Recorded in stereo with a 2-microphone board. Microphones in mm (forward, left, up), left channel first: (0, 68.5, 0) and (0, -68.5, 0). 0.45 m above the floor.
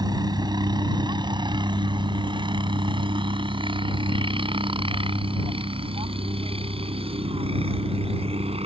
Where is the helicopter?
30° right (ahead or behind); by 8.7 s 45° right (ahead or behind).